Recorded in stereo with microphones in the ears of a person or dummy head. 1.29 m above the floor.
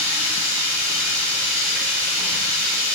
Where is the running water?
75° right (ahead or behind), 1.6 m.